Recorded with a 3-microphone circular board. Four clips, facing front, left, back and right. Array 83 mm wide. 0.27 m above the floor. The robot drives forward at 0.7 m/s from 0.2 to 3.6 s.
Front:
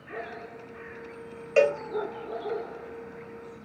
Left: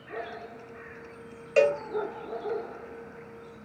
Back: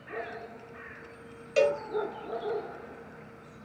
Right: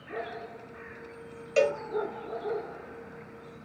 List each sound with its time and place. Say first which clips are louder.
1.6 s a cowbell: left 3 dB, front 3 dB; 25° left, 1.0 m; by 1.8 s 40° left, 1.0 m